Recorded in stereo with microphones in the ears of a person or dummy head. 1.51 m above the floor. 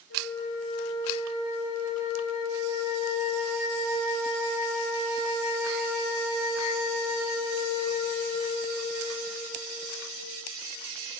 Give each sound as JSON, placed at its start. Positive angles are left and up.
{"t": 0.1, "sound": "a flute", "side_deg": 70, "distance_m": 6.5}